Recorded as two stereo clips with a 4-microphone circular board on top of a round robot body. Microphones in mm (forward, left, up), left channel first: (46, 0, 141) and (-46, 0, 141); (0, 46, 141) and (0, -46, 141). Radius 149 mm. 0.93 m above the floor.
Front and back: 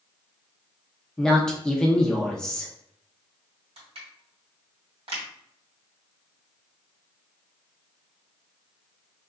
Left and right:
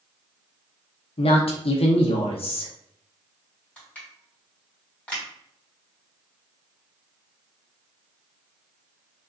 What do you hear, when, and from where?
1.2 s a woman speaking: 85° left, 0.7 m
3.8 s crushing: 165° left, 2 m